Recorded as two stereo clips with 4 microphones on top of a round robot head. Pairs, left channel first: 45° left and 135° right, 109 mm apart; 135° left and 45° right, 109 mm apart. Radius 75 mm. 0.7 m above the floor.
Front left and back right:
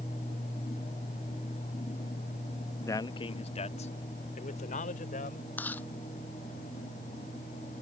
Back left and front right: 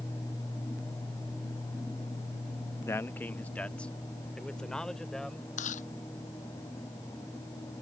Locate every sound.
2.9 s a man speaking: 90° left; by 5.5 s 50° left
5.6 s chewing: 125° left